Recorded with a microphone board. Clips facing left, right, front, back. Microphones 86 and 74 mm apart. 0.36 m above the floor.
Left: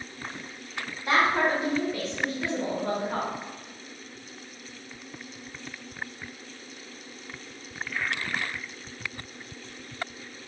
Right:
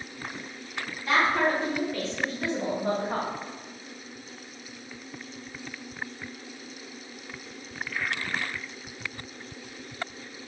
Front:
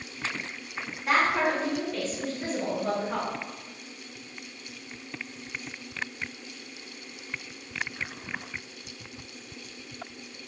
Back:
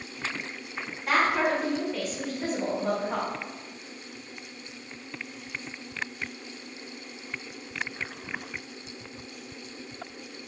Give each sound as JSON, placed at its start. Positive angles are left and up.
{"t": 1.1, "sound": "a woman speaking", "azimuth_deg": 80, "distance_m": 1.0}